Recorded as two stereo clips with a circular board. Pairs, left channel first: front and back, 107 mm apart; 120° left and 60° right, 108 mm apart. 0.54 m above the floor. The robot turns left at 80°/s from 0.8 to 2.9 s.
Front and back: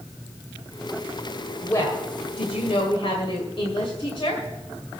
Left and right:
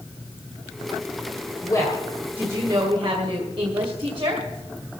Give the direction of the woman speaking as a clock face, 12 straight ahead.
10 o'clock.